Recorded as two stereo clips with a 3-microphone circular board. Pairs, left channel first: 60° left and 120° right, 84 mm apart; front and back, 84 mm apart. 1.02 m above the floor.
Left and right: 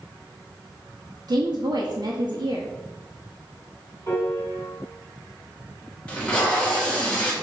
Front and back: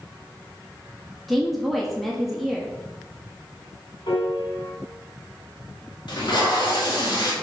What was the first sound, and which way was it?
A woman speaking, 90° right.